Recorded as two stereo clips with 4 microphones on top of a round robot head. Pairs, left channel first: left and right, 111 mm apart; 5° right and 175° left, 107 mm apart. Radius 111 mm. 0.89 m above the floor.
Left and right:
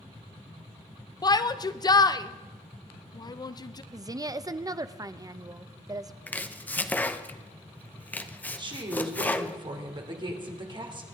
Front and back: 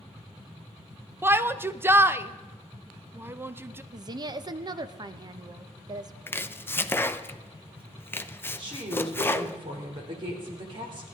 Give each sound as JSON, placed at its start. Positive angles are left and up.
{"t": 1.2, "sound": "a shout", "azimuth_deg": 115, "distance_m": 0.7}
{"t": 3.9, "sound": "a woman speaking", "azimuth_deg": -145, "distance_m": 0.8}
{"t": 6.3, "sound": "chopping", "azimuth_deg": 35, "distance_m": 0.9}
{"t": 8.6, "sound": "a woman speaking", "azimuth_deg": -135, "distance_m": 2.5}